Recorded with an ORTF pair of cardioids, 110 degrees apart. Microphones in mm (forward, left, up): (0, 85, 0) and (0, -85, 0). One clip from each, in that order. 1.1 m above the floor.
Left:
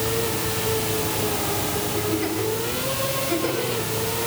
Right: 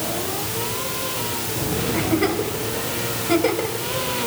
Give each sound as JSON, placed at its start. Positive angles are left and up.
{"t": 1.9, "sound": "a giggle", "azimuth_deg": -45, "distance_m": 5.5}